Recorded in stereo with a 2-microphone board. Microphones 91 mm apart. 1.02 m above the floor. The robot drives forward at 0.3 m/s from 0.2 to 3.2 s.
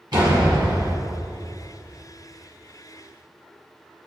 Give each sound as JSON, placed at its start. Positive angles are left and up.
{"t": 0.1, "sound": "a door slam", "side_deg": -55, "distance_m": 6.5}